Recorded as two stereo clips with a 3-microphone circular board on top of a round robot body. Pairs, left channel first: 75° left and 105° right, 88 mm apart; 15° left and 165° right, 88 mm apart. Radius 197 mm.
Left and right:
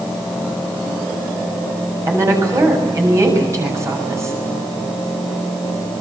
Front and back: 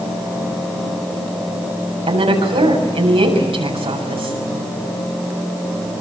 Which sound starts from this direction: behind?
A woman speaking, at 2.1 s.